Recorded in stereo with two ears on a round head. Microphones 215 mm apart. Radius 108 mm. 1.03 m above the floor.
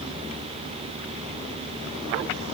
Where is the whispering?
No whispering in this recording.